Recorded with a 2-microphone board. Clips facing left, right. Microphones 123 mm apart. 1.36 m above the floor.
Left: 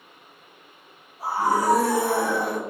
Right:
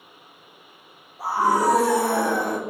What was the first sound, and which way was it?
A scream, 85° right.